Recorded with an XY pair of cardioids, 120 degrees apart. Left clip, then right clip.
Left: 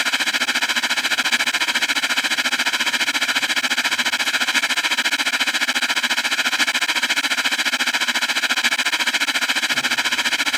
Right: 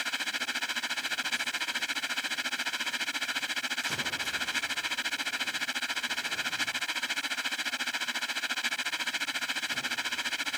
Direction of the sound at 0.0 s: 65° left.